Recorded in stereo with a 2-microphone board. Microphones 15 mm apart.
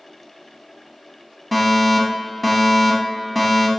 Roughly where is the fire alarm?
Centre.